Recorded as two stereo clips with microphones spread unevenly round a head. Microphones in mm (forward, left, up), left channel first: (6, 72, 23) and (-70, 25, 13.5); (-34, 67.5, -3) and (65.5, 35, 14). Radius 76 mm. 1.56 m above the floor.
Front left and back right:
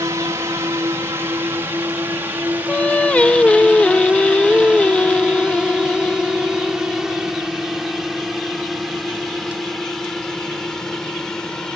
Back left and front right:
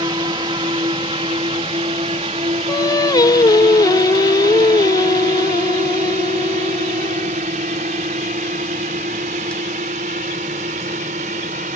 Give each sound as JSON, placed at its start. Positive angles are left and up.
{"t": 0.0, "sound": "a drone", "azimuth_deg": -80}
{"t": 2.7, "sound": "singing", "azimuth_deg": 110}